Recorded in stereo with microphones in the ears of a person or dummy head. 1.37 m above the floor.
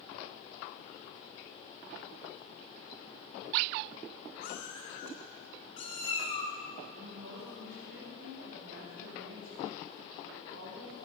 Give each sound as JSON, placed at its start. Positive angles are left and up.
{"t": 4.4, "sound": "a cat meowing", "side_deg": 55, "distance_m": 2.5}
{"t": 6.9, "sound": "a woman speaking", "side_deg": -70, "distance_m": 6.0}